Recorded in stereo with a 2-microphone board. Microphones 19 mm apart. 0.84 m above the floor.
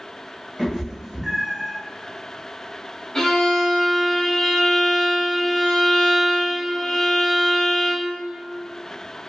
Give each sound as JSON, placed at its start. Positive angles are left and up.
{"t": 0.6, "sound": "a cat meowing", "side_deg": -35, "distance_m": 0.9}
{"t": 3.1, "sound": "a violin", "side_deg": 30, "distance_m": 0.8}